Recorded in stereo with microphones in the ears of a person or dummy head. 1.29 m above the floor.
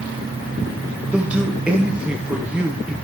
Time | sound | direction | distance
1.1 | a man speaking | 5° right (ahead or behind) | 0.7 m